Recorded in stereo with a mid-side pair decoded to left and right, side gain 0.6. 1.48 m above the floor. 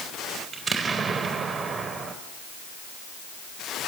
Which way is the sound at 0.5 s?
35° right.